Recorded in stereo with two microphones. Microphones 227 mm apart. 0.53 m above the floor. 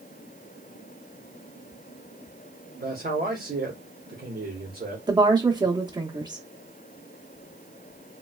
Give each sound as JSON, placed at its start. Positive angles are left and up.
{"t": 2.8, "sound": "a man speaking", "side_deg": -40, "distance_m": 1.1}
{"t": 5.1, "sound": "a woman speaking", "side_deg": -20, "distance_m": 0.7}